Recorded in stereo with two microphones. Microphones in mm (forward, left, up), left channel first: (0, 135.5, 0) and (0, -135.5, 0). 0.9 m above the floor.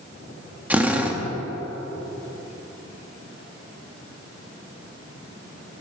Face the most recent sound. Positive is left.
turn(degrees=-5)  # may be behind; listen again after turning